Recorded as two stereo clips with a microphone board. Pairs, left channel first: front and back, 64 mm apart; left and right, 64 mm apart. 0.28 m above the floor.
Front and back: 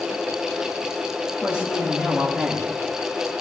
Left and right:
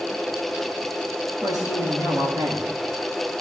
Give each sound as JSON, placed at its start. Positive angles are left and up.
{"t": 1.4, "sound": "a woman speaking", "azimuth_deg": -105, "distance_m": 8.5}